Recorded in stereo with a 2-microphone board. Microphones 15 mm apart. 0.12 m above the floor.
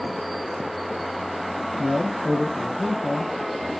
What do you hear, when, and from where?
1.8 s a man speaking: 45° left (ahead or behind), 3.5 m